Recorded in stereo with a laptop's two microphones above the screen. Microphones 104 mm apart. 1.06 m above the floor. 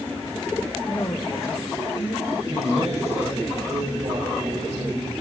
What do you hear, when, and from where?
0.9 s a woman speaking: 35° left (ahead or behind), 1.3 m; by 2.3 s 55° left (ahead or behind), 2.5 m
2.4 s a man speaking: 70° right (ahead or behind), 6 m